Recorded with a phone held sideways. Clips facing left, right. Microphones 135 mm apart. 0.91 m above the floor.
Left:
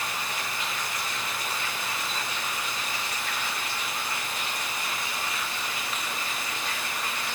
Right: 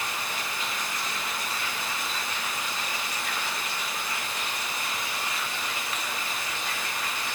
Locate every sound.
Only background noise.